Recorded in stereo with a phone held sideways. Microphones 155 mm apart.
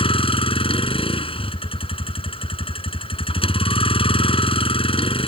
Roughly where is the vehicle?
Left.